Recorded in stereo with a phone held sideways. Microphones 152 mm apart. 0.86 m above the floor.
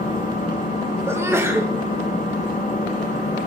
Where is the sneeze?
15° right (ahead or behind), 0.7 m.